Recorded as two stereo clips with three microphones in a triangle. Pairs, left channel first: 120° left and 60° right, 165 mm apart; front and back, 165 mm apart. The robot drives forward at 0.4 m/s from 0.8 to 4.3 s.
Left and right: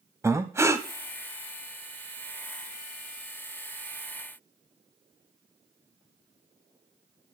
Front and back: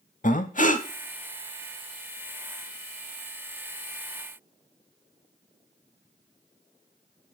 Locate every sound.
0.2 s breathing: 10° left, 0.7 m